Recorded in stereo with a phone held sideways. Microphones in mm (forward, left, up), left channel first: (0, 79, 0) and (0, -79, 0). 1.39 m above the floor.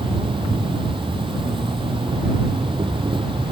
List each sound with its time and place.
0.0 s an insect: 30° right (ahead or behind)